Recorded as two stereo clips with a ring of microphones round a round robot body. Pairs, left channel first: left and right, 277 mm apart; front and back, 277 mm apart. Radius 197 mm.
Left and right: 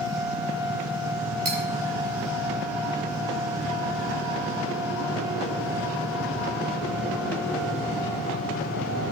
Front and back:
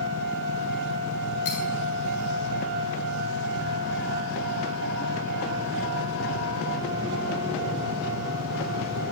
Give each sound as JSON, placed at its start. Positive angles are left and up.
{"t": 1.4, "sound": "cutlery clinking", "azimuth_deg": -55, "distance_m": 3.5}